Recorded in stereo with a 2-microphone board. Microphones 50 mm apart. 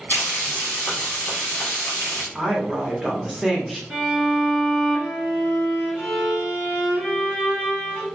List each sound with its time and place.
0.1 s frying: 35° left (ahead or behind), 1.5 m
2.4 s a woman speaking: 10° right (ahead or behind), 0.9 m
3.9 s a violin: 10° right (ahead or behind), 1.3 m